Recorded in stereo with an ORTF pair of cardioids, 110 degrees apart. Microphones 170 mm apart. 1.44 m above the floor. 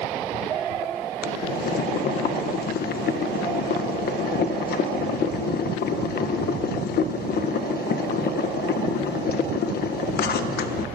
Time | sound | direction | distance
1.2 | boiling | 70° left | 1.2 m